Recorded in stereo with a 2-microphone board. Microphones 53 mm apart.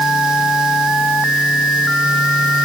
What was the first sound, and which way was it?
Only background noise.